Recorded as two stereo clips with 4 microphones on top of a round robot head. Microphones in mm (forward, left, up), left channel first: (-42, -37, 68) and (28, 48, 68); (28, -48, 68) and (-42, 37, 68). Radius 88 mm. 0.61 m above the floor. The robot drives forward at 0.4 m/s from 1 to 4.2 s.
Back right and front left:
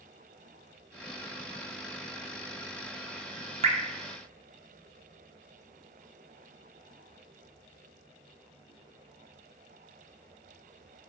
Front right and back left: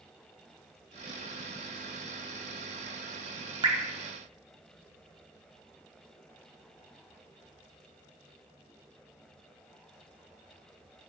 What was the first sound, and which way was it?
Dripping, 80° left.